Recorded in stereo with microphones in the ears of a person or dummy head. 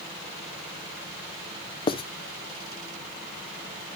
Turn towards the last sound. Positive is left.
turn(degrees=25)  # may be behind; listen again after turning